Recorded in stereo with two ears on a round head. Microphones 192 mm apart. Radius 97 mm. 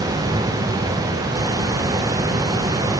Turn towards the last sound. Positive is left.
No sound to turn to.